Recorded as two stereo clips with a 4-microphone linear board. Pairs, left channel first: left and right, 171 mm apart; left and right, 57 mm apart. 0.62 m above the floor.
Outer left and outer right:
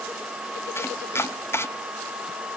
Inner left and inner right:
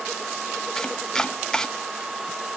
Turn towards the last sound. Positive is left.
turn(degrees=15)  # may be behind; listen again after turning